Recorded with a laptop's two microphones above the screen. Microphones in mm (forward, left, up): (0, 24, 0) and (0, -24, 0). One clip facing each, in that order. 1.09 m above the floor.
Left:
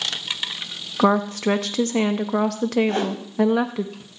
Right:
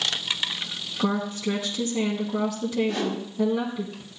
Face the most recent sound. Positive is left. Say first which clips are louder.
# left 4 dB
turn(degrees=50)  # may be behind; listen again after turning